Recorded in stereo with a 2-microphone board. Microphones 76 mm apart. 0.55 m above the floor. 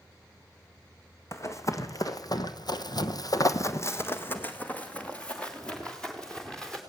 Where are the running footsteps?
40° left (ahead or behind), 1.9 m; by 6.8 s 10° left (ahead or behind), 4 m.